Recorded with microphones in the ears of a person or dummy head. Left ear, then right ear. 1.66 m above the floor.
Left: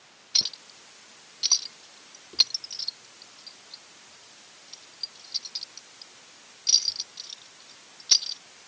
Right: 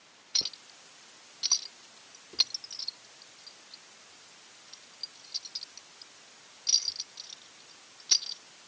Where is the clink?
5° right (ahead or behind).